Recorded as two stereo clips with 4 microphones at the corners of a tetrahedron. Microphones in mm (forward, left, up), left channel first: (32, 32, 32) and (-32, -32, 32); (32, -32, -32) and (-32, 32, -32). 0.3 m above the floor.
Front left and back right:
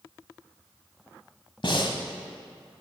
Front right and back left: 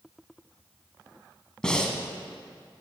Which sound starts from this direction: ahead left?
Breathing, at 1.6 s.